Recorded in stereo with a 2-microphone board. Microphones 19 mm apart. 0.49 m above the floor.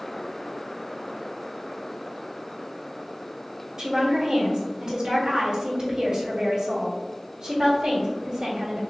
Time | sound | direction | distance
3.8 | a woman speaking | 50° right (ahead or behind) | 1.9 m